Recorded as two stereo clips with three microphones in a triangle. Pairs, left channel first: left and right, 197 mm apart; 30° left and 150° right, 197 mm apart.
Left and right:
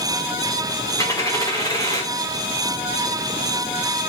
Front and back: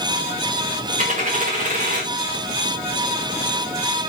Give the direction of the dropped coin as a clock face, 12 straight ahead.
7 o'clock.